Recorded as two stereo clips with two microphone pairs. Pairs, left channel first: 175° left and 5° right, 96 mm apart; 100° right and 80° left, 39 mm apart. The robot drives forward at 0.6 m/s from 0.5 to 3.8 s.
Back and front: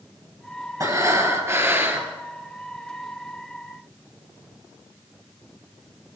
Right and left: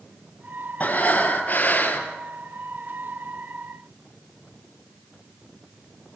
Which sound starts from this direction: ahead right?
Breathing, at 0.8 s.